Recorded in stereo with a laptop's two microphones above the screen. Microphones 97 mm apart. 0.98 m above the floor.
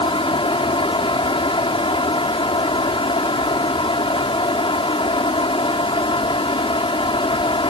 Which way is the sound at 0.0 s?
70° left (ahead or behind).